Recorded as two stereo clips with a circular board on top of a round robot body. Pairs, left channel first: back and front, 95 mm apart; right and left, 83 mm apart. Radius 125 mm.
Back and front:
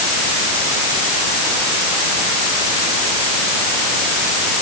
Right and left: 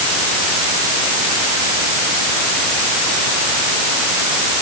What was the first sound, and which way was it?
Only background noise.